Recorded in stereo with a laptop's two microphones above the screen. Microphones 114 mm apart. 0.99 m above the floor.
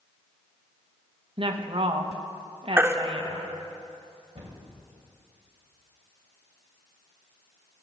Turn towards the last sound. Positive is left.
turn(degrees=-75)  # may be behind; listen again after turning